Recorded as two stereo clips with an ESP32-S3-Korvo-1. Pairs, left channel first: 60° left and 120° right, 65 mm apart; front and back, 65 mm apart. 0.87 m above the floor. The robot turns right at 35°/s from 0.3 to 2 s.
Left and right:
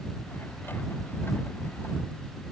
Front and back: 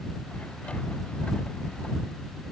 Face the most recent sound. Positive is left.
No sound to turn to.